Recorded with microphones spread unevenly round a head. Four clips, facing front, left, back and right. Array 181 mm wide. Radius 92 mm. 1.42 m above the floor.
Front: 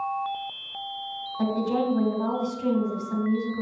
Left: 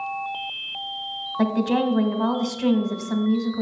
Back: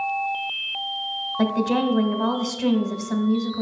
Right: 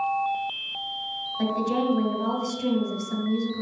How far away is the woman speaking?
About 1.8 m.